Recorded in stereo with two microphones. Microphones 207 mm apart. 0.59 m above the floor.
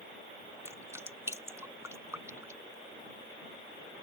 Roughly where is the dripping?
Centre.